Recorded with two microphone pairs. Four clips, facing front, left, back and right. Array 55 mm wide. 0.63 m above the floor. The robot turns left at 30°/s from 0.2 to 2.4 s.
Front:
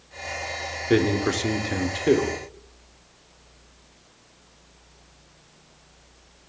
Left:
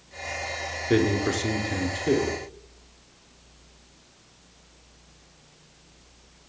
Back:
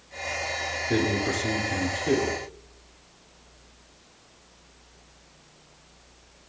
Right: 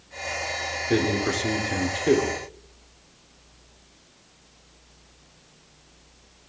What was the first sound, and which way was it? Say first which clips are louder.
A man speaking: left 1 dB, front 5 dB; 15° left.